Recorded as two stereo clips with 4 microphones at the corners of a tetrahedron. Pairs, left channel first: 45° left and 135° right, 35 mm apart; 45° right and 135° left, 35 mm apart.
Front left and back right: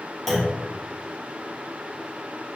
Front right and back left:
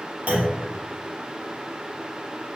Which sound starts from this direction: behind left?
A clunk, at 0.3 s.